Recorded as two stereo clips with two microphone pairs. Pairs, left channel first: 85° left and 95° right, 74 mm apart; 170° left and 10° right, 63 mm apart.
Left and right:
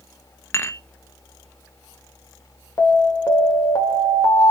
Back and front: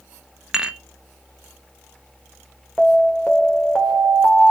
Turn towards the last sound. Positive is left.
turn(degrees=85)